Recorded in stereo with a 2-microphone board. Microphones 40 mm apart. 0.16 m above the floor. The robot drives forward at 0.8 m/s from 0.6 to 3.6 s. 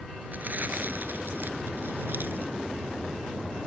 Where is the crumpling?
50° right (ahead or behind); by 2.5 s 55° right (ahead or behind).